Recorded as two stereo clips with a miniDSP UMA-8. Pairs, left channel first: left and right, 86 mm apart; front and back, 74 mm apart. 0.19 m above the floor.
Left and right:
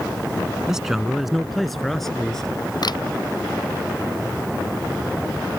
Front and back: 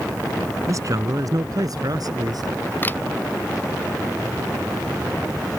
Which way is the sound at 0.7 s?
170° right.